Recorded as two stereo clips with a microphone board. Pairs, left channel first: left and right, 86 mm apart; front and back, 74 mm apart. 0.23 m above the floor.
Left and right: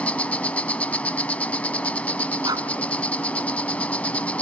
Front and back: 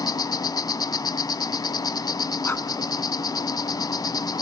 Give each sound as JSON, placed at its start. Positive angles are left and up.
{"t": 0.0, "sound": "an insect", "azimuth_deg": 15, "distance_m": 0.7}
{"t": 2.4, "sound": "breathing", "azimuth_deg": -60, "distance_m": 1.9}